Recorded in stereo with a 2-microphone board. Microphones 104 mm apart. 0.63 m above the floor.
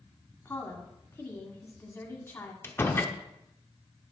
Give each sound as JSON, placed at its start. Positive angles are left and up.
{"t": 0.5, "sound": "a woman speaking", "side_deg": 25, "distance_m": 1.6}
{"t": 2.6, "sound": "a door slam", "side_deg": 25, "distance_m": 0.9}